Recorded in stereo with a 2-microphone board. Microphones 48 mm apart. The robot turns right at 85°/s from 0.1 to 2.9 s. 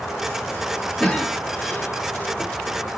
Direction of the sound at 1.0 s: 15° left (ahead or behind).